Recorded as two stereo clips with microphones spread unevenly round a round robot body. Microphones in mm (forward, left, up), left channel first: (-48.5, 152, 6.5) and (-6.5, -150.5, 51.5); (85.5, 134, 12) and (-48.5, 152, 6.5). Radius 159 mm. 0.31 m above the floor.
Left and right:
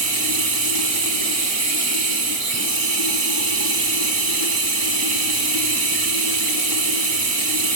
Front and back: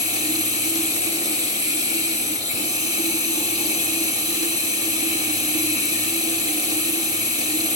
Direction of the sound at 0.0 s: 30° right.